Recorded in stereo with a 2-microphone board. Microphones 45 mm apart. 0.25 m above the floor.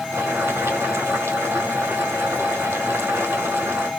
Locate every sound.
0.1 s boiling: 85° right, 2 m